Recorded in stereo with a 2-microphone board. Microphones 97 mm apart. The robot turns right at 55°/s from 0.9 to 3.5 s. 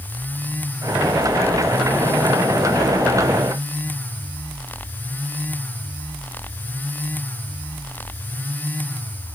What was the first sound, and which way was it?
Only background noise.